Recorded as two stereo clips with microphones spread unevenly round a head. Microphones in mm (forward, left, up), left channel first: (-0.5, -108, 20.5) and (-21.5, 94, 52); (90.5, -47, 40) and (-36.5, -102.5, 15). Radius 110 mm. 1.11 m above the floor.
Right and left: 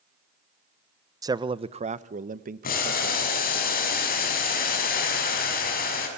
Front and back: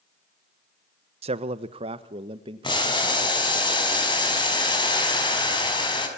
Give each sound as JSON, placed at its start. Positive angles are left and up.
{"t": 1.2, "sound": "a man speaking", "azimuth_deg": 175, "distance_m": 0.8}
{"t": 2.6, "sound": "boiling", "azimuth_deg": -35, "distance_m": 6.0}